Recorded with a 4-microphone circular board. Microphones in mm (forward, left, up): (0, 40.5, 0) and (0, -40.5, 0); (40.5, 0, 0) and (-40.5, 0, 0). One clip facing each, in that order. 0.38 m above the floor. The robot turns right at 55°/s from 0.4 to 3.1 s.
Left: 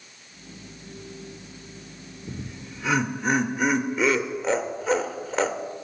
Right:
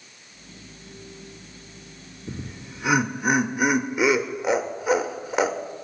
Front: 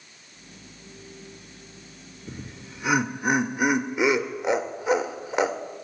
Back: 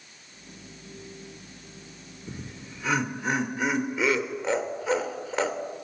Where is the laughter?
80° right, 0.8 m; by 5.6 s 35° right, 0.8 m.